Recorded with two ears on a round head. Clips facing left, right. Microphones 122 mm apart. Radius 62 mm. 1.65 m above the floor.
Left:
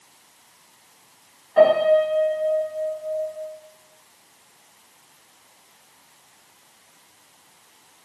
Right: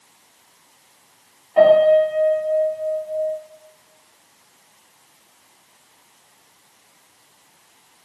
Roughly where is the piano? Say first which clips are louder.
Right 3 dB; centre.